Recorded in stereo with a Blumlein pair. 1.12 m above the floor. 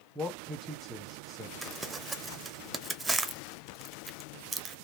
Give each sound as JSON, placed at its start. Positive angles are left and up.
{"t": 0.1, "sound": "a man speaking", "azimuth_deg": -10, "distance_m": 0.9}
{"t": 1.6, "sound": "crumpling", "azimuth_deg": -10, "distance_m": 0.7}